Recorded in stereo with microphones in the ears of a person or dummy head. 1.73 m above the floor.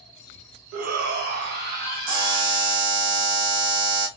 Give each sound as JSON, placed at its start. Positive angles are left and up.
{"t": 0.7, "sound": "a shout", "side_deg": -50, "distance_m": 0.5}
{"t": 2.1, "sound": "a buzzer", "side_deg": -60, "distance_m": 1.4}